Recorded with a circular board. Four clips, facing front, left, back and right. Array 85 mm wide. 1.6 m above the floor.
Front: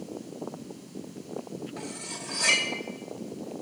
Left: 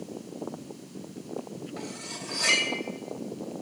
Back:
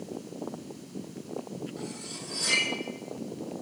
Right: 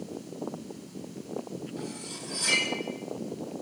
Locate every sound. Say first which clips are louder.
1.8 s cutlery clinking: even, front 1 dB; 55° left, 5 m